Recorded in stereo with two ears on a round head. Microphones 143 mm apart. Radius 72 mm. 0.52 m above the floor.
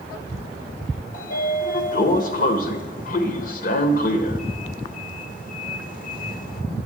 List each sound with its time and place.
1.1 s a sliding door: 60° left (ahead or behind), 1.4 m